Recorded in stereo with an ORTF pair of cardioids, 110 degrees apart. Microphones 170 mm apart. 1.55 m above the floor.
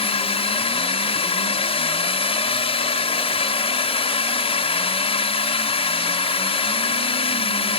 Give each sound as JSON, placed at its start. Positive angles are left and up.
{"t": 0.0, "sound": "a drone", "azimuth_deg": 35}